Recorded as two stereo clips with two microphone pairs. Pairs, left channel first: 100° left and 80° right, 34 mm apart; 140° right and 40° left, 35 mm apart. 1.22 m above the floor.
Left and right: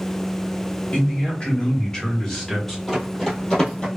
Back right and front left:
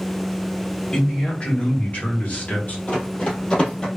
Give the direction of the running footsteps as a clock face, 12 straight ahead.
6 o'clock.